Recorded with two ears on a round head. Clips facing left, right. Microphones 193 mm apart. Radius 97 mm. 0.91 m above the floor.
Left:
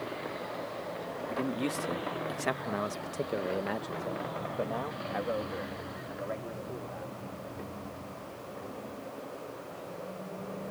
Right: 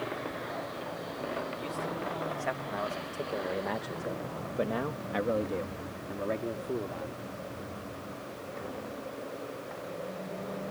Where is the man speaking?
65° left (ahead or behind); by 7.2 s 55° right (ahead or behind).